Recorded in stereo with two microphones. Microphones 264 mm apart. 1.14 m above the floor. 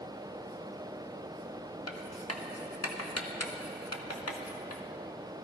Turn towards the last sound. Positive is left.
turn(degrees=65)  # may be behind; listen again after turning